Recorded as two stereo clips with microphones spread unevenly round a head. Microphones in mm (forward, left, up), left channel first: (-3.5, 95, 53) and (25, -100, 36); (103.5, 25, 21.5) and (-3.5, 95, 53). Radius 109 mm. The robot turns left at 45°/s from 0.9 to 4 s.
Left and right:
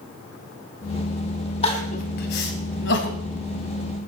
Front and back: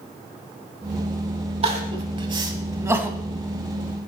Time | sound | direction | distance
1.6 | crying | 155° left | 1.6 m